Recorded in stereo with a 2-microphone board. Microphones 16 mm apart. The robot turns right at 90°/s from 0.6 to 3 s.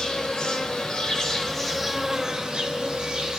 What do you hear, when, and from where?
0.0 s an insect: 70° left, 2.5 m; by 3.4 s 75° right, 2.5 m